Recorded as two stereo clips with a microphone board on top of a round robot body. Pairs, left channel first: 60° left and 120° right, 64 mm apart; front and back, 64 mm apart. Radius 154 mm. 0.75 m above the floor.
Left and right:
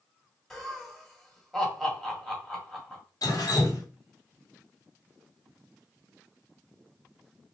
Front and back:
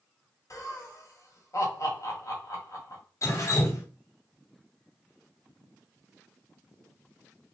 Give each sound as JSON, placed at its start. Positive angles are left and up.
{"t": 0.5, "sound": "laughter", "azimuth_deg": -20, "distance_m": 1.9}
{"t": 3.2, "sound": "dripping", "azimuth_deg": 40, "distance_m": 1.1}